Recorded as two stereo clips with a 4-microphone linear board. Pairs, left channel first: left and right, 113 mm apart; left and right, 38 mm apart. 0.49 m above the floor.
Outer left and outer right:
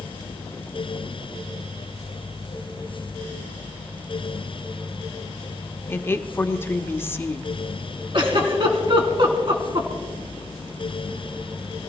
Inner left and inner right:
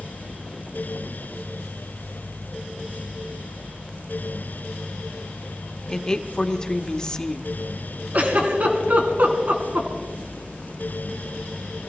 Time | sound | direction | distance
5.9 | a woman speaking | 20° left (ahead or behind) | 1.0 m
8.1 | a giggle | 50° right (ahead or behind) | 3 m